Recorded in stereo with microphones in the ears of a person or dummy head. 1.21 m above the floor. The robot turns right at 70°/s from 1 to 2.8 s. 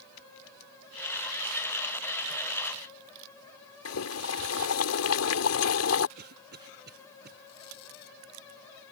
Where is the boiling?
85° left.